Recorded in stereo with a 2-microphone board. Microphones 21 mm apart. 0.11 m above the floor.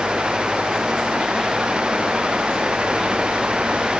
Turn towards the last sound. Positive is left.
No sound to turn to.